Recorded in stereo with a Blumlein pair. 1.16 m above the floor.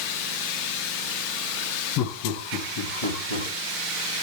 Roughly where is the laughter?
Ahead left.